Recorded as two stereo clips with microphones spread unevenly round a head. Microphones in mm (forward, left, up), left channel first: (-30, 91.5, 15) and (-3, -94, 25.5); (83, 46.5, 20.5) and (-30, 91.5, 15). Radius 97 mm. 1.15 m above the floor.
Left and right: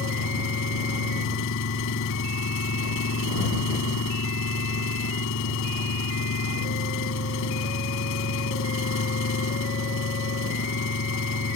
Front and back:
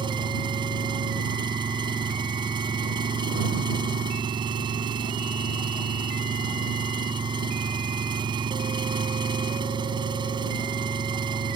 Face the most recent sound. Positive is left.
turn(degrees=110)